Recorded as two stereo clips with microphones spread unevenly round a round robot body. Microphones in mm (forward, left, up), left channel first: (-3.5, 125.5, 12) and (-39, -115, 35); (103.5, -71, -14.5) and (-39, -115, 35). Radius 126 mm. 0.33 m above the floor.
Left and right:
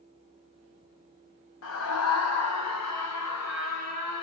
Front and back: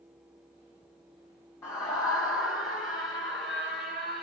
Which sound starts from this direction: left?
A scream, at 1.6 s.